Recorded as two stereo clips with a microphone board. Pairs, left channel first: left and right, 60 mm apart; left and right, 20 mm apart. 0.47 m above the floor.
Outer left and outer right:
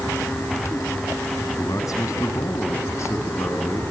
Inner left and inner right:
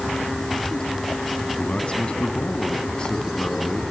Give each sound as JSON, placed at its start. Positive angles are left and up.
{"t": 1.6, "sound": "a man speaking", "side_deg": 75, "distance_m": 3.0}